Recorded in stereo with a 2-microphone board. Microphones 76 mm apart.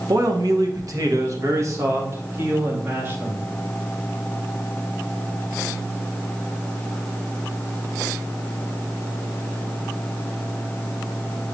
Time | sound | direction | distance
0.1 | a man speaking | 55° right (ahead or behind) | 1.0 m